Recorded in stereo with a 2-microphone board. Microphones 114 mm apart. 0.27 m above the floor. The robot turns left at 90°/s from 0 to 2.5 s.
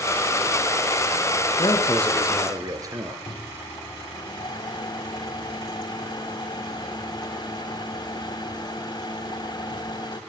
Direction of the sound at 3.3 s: 40° left (ahead or behind).